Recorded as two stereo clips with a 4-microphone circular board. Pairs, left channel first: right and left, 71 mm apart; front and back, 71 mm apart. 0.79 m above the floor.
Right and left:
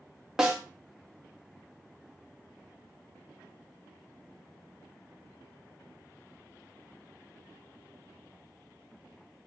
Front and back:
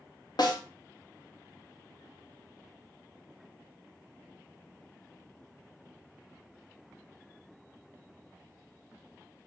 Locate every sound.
0.4 s a snare drum: 10° left, 1.0 m